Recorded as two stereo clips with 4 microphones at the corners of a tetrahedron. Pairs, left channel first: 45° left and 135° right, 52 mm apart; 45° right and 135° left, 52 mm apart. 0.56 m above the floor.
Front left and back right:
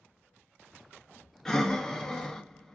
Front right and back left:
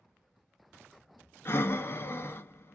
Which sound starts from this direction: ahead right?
Breathing, at 1.4 s.